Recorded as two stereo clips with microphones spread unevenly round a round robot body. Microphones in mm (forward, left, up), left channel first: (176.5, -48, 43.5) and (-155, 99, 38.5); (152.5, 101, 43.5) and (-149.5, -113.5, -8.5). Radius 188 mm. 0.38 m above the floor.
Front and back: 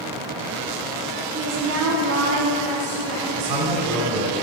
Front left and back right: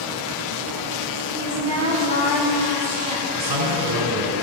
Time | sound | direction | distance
1.3 | a woman speaking | 110° left | 2.5 m
3.4 | a man speaking | 175° right | 2.5 m